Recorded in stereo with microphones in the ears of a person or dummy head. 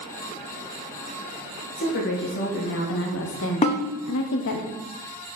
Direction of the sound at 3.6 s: 30° left (ahead or behind).